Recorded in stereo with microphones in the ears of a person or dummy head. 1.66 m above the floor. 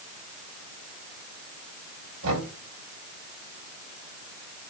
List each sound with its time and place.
2.2 s knocking: 80° right, 7.5 m